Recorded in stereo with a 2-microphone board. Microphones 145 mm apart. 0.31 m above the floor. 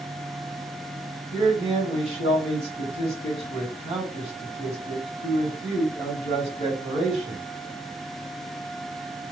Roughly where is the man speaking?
Right.